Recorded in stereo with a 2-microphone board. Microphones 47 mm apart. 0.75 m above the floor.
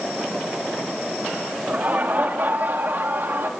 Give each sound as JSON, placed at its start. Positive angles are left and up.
{"t": 1.7, "sound": "laughter", "side_deg": -40, "distance_m": 1.6}